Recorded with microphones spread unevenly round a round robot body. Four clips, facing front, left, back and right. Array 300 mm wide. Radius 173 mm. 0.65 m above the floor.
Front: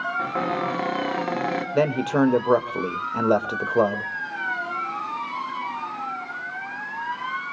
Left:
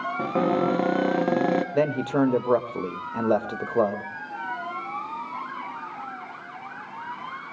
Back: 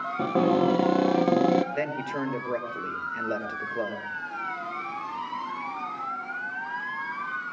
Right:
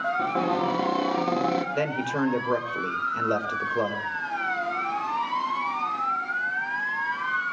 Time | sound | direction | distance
0.2 | a cupboard door | 160° left | 1.6 m
1.7 | a man speaking | 15° left | 2.5 m